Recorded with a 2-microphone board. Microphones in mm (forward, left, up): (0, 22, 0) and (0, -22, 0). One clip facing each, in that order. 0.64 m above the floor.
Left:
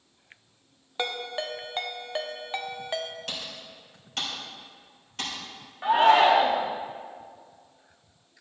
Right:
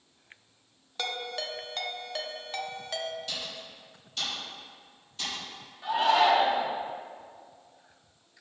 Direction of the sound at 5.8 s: 40° left (ahead or behind).